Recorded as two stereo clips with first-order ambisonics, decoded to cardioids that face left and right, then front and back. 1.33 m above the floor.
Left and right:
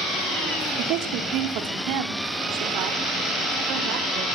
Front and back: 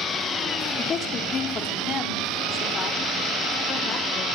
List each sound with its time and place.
0.8 s a woman speaking: 65° right, 2.0 m; by 4.3 s 60° right, 4.5 m